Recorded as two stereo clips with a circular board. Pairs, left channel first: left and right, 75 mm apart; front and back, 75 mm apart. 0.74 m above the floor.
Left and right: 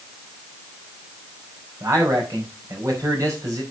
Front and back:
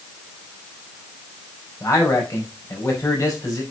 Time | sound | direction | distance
1.8 | a man speaking | 45° right | 4.5 m